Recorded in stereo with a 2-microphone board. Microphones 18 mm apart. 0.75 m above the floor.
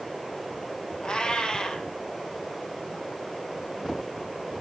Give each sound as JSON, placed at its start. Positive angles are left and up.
{"t": 1.0, "sound": "a cat meowing", "side_deg": 55, "distance_m": 2.0}